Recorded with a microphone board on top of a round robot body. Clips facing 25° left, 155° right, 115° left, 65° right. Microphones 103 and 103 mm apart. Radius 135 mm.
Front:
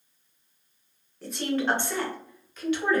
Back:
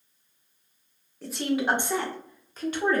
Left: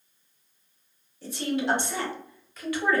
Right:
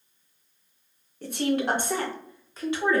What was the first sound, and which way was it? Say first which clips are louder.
A woman speaking: back 1 dB, right 2 dB; 70° right.